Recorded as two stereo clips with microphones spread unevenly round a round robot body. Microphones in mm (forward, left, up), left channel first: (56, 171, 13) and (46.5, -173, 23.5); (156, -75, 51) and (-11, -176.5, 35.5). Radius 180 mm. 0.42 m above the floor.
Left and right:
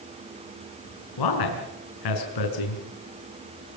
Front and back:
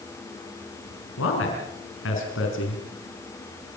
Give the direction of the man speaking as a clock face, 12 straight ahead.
10 o'clock.